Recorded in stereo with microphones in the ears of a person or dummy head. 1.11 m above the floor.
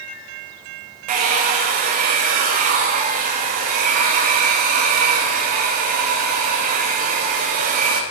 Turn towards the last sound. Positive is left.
turn(degrees=-40)  # may be behind; listen again after turning